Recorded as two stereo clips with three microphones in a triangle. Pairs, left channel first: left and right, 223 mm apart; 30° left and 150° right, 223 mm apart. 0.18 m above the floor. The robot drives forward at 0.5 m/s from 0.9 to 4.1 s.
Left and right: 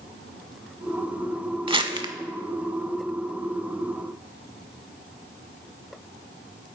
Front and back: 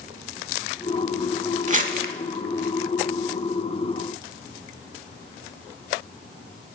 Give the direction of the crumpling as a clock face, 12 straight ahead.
4 o'clock.